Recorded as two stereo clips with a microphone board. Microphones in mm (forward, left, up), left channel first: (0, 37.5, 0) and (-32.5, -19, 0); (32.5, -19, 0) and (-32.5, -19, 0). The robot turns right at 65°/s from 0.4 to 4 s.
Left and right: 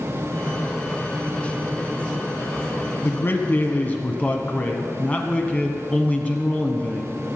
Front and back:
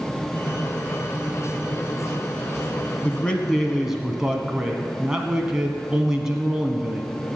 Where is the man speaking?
45° left, 1.2 m; by 7.2 s 110° left, 1.2 m.